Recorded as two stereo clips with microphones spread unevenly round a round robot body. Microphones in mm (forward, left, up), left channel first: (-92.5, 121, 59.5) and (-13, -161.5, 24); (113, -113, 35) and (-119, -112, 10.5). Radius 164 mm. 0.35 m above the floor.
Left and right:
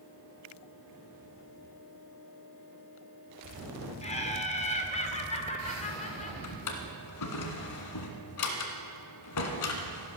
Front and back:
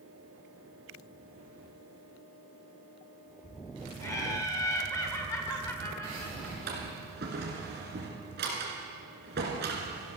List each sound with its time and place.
4.0 s laughter: 70° left, 1.3 m
6.4 s a drawer: 120° left, 1.6 m